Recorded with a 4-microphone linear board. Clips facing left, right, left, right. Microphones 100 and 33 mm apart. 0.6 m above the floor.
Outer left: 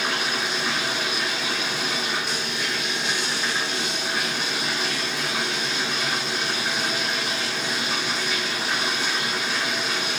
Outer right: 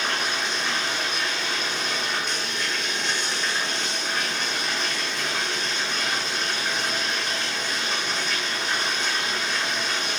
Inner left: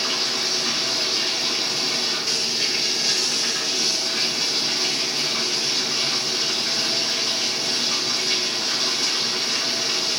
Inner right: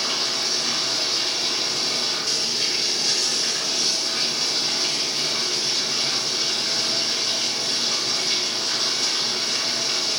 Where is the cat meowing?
I don't hear a cat meowing.